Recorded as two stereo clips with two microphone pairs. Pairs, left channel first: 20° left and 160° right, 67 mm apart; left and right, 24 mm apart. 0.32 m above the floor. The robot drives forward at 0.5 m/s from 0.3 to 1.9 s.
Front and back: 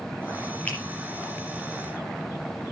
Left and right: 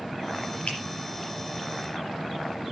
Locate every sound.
0.7 s a finger snap: 90° left, 6 m